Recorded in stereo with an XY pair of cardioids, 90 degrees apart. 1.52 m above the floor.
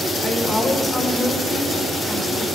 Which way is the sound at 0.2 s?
30° left.